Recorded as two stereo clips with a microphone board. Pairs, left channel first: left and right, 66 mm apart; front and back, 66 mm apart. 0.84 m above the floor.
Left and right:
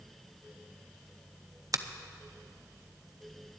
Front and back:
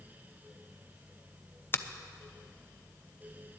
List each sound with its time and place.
1.7 s a finger snap: 60° right, 0.5 m